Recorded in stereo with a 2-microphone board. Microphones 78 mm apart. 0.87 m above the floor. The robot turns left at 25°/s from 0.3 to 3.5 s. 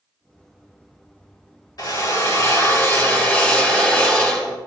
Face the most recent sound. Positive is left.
turn(degrees=20)